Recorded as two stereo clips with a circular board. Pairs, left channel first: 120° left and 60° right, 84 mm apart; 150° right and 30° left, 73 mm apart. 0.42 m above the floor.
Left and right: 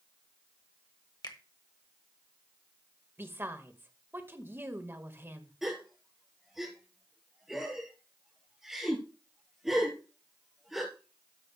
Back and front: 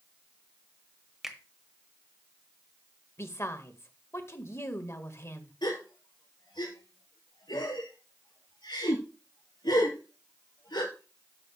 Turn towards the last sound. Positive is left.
turn(degrees=-145)